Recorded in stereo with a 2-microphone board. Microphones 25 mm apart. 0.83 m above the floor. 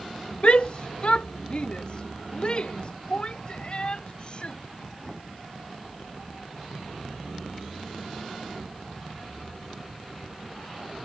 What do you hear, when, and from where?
0.4 s a shout: 50° left (ahead or behind); by 4.6 s 40° left (ahead or behind)